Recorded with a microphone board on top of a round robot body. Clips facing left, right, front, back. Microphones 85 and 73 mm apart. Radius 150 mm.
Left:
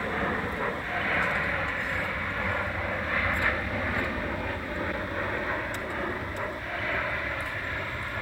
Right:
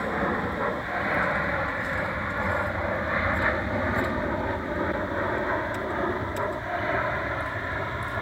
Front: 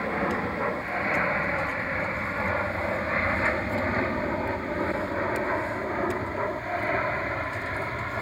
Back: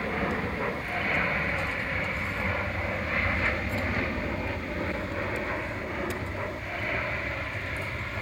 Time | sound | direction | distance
0.0 | an aircraft | 40° right | ?